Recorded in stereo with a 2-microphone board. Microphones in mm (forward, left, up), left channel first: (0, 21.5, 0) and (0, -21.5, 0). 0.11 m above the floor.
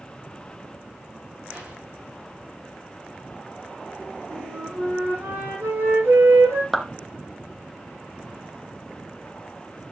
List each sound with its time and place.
1.5 s an explosion: 20° right (ahead or behind), 6.5 m
4.3 s a flute: 65° right (ahead or behind), 5 m
6.7 s a clap: centre (ahead or behind), 1.2 m